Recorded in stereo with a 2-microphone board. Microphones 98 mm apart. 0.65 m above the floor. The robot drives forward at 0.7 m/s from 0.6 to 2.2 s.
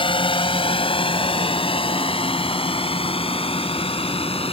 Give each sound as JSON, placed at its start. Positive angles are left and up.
{"t": 0.0, "sound": "a drone", "side_deg": 65}